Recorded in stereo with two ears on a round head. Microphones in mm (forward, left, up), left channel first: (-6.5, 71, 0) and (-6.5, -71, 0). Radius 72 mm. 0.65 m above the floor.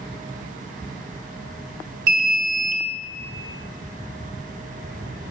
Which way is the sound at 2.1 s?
55° right (ahead or behind).